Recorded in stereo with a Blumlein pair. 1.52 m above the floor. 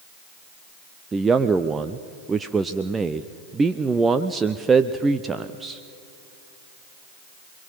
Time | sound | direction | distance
1.1 | a man speaking | 15° right | 0.7 m